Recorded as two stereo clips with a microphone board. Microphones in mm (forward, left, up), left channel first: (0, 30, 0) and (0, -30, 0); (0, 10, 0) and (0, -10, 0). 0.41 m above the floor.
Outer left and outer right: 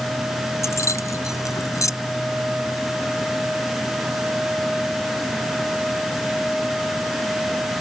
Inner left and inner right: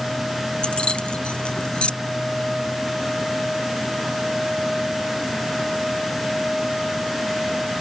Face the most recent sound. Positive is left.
turn(degrees=65)  # may be behind; listen again after turning